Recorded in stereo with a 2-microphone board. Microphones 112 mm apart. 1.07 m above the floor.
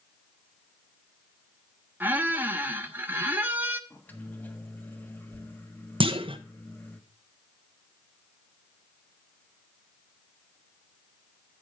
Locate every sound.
2.0 s a squeak: 15° right (ahead or behind), 0.8 m
3.9 s a microwave: 15° left (ahead or behind), 1.3 m
6.0 s a clunk: 50° right (ahead or behind), 0.9 m